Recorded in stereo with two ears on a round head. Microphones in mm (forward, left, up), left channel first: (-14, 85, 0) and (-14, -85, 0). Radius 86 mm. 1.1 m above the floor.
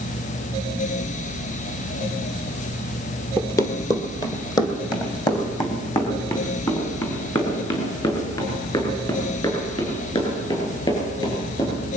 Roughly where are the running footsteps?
Centre.